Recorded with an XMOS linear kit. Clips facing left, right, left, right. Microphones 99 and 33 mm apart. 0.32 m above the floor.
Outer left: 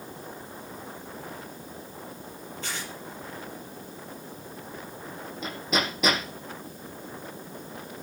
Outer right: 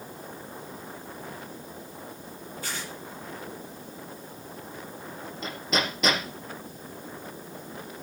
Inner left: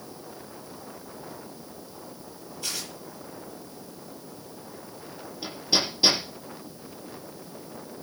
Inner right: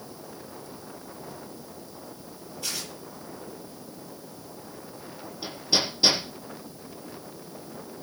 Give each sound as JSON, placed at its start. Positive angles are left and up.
{"t": 2.6, "sound": "tearing paper", "side_deg": -10, "distance_m": 8.5}
{"t": 5.4, "sound": "hammering", "side_deg": 0, "distance_m": 8.5}